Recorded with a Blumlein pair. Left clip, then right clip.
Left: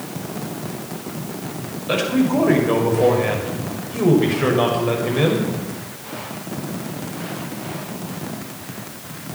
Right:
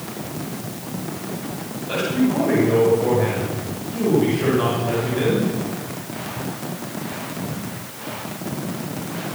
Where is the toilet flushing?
No toilet flushing in this recording.